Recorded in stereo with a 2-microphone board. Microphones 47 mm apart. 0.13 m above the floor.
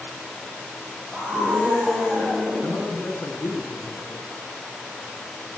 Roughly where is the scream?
Right.